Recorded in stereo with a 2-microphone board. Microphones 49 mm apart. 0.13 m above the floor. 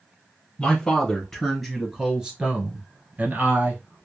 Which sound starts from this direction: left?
A man speaking, at 0.6 s.